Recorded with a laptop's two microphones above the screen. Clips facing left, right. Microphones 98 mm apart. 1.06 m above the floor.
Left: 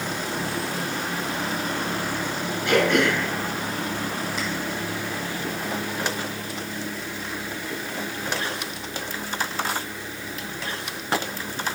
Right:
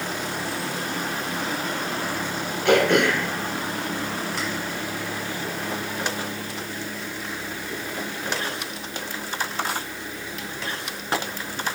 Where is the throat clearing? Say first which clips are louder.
Right 2 dB; 80° right, 4 m.